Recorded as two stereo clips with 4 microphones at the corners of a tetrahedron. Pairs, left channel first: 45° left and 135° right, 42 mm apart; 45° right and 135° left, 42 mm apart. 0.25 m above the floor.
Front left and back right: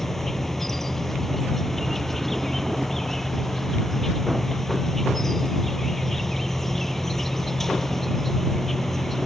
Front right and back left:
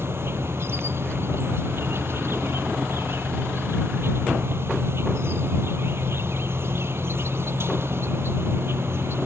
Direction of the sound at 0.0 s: 125° left.